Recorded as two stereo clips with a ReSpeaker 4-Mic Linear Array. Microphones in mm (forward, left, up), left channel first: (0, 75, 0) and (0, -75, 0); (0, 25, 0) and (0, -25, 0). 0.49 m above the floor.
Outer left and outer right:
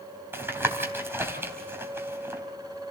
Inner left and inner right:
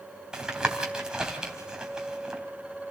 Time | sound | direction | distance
0.3 | tapping | 15° right (ahead or behind) | 3 m